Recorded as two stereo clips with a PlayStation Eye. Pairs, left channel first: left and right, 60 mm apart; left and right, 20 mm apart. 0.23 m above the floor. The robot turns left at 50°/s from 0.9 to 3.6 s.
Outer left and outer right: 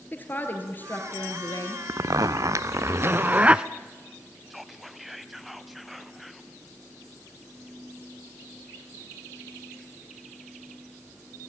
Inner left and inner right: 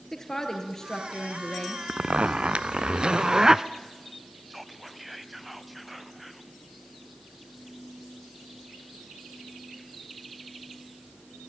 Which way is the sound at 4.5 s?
5° right (ahead or behind).